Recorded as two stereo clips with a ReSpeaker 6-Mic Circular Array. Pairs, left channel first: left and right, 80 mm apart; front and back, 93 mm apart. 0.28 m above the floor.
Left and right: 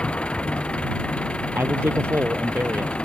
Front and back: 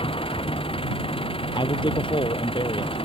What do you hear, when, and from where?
0.0 s an engine running: 15° left
1.6 s a man speaking: 30° right